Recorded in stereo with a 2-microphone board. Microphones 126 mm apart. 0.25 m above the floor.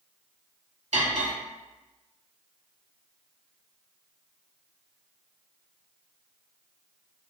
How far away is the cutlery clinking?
About 1.7 m.